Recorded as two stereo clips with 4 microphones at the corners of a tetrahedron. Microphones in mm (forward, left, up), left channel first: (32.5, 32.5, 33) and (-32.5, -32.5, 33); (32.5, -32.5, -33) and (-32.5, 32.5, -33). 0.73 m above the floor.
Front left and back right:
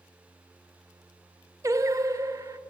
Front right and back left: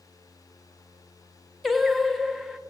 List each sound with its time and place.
1.6 s singing: 135° right, 0.8 m